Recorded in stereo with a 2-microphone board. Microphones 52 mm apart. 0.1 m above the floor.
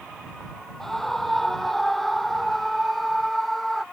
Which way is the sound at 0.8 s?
5° left (ahead or behind).